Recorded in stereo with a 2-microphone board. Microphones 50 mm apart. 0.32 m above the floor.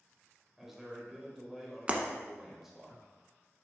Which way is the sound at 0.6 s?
5° right (ahead or behind).